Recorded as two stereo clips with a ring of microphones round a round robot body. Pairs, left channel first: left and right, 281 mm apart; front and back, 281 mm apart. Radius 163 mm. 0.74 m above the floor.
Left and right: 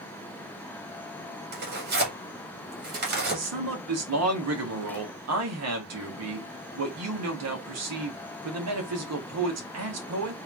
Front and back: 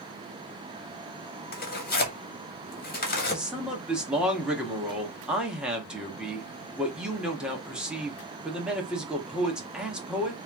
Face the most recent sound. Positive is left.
turn(degrees=-95)